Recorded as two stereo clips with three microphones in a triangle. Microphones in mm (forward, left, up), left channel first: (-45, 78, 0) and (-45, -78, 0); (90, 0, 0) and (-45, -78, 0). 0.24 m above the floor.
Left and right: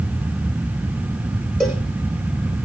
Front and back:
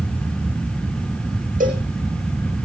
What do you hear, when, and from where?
1.6 s a cowbell: 175° left, 5.5 m